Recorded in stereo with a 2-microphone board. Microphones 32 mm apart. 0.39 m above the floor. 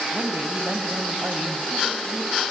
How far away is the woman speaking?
About 2 m.